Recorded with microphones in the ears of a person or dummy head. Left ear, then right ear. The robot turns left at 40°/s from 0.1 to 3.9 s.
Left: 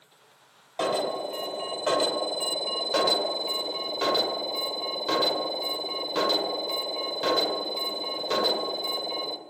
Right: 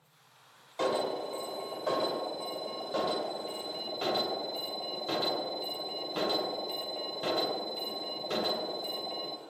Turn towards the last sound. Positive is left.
turn(degrees=40)